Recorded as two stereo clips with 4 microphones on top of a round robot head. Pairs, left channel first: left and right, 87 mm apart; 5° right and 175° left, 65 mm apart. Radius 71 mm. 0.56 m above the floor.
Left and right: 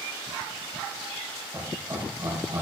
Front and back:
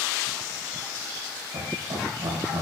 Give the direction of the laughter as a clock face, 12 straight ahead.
5 o'clock.